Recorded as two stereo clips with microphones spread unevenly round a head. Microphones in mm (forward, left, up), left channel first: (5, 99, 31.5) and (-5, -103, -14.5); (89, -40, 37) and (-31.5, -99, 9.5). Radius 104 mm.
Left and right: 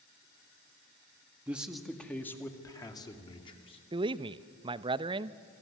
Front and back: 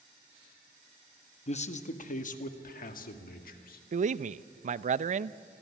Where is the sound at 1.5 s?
15° right, 1.6 m; by 3.8 s 20° left, 3 m.